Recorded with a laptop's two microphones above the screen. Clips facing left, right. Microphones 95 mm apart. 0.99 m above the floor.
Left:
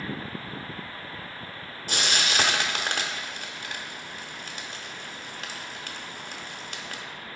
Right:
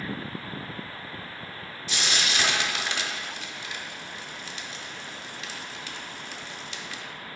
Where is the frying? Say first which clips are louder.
Left 2 dB; 50° left (ahead or behind), 0.8 m.